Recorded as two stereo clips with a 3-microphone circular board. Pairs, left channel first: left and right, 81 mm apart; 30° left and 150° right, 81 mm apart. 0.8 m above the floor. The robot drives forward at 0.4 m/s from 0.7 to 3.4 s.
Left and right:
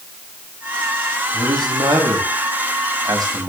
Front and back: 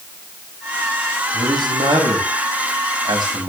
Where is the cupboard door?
I don't hear a cupboard door.